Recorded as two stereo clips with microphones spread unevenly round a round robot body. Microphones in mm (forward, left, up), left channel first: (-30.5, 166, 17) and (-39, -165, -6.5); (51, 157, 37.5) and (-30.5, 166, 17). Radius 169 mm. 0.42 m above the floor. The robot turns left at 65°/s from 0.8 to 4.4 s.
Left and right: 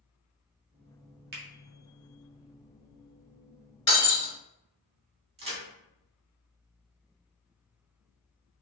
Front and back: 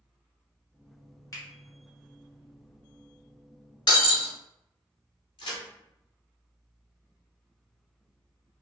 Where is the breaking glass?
10° left, 1.4 m; by 4.3 s 20° right, 1.4 m.